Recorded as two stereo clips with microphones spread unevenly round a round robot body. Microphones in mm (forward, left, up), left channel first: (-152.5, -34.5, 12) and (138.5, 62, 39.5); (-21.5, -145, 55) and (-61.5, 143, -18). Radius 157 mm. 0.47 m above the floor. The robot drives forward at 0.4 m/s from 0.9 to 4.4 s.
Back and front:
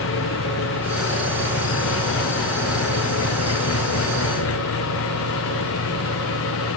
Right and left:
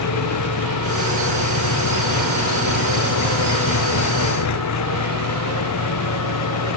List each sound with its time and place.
0.0 s an engine running: 110° right; by 6.8 s 115° right